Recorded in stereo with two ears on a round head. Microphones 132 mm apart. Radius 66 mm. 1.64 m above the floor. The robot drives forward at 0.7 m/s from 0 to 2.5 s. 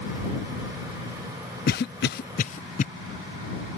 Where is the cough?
60° left (ahead or behind); by 2.9 s 55° left (ahead or behind).